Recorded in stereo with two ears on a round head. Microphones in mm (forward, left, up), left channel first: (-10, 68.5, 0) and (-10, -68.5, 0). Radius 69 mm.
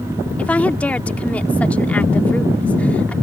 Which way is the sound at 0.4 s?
10° left (ahead or behind).